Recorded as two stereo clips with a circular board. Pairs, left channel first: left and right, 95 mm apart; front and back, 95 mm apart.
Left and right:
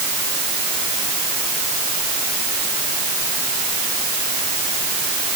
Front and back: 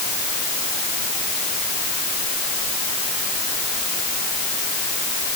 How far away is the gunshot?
I don't hear a gunshot.